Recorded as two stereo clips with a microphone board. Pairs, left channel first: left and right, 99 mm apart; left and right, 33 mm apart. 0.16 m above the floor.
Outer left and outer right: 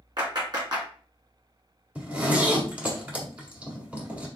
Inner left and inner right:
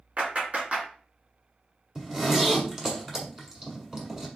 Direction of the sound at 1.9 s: 15° right (ahead or behind).